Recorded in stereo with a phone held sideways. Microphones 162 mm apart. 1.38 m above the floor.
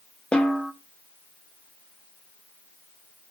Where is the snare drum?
5° left (ahead or behind), 0.9 m.